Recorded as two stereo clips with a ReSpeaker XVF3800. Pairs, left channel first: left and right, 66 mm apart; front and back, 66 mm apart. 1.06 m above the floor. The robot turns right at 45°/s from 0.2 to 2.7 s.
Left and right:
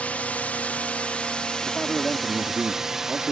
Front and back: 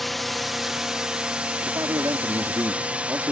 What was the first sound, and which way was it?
A drone, 85° left.